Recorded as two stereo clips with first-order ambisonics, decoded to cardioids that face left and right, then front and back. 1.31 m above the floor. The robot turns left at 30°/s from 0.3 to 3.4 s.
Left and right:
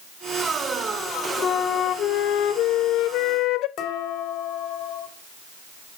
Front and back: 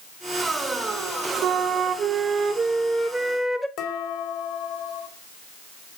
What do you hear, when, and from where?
1.4 s a flute: 140° left, 0.7 m; by 3.7 s 80° left, 0.7 m
3.8 s dishes clattering: 40° left, 2.5 m